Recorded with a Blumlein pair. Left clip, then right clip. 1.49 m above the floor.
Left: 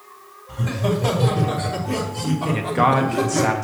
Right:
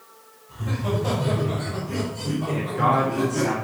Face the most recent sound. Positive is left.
turn(degrees=50)